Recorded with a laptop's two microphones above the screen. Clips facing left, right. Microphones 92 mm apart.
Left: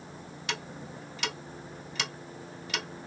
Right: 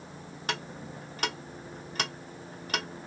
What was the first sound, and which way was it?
Ticking, 45° right (ahead or behind).